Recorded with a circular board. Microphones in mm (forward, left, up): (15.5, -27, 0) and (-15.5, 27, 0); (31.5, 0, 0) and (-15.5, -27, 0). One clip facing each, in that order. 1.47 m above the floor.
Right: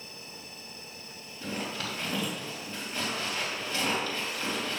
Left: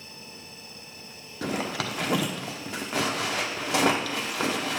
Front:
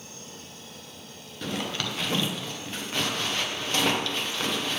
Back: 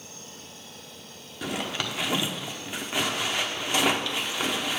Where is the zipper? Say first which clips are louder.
Left 6 dB, even; 130° left, 1.1 m.